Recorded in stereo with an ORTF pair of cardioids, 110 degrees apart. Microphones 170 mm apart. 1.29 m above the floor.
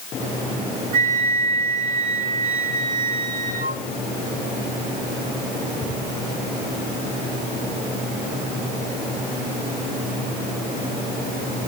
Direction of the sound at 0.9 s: 55° right.